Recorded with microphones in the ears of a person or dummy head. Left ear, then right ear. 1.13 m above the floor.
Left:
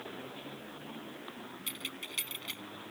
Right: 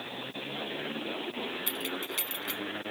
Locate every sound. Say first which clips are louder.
1.7 s keys jangling: right 6 dB; 5° left (ahead or behind)